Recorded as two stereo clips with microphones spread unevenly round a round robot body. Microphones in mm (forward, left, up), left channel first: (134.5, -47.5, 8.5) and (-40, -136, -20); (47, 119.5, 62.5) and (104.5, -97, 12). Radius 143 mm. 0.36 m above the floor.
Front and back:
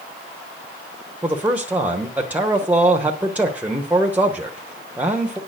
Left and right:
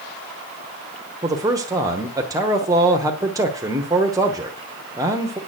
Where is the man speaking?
95° right, 1.1 m.